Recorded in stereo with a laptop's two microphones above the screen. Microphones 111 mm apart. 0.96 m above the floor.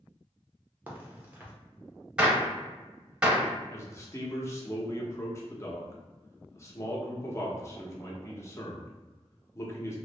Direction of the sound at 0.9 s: 15° right (ahead or behind).